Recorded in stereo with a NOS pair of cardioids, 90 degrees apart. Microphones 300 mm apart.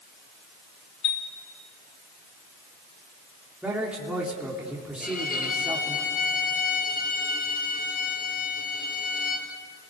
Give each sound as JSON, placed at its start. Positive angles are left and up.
{"t": 1.0, "sound": "a chime", "azimuth_deg": 65, "distance_m": 2.5}
{"t": 3.6, "sound": "a man speaking", "azimuth_deg": -5, "distance_m": 3.0}
{"t": 5.0, "sound": "a violin", "azimuth_deg": 30, "distance_m": 4.0}